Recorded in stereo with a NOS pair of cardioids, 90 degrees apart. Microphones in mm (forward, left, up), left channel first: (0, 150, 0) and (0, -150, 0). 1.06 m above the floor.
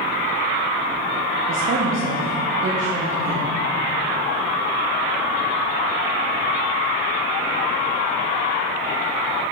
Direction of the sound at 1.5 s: 50° right.